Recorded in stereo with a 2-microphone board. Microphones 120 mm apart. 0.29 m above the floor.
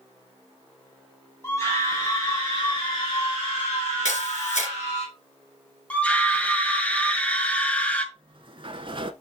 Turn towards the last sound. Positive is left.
turn(degrees=-45)  # may be behind; listen again after turning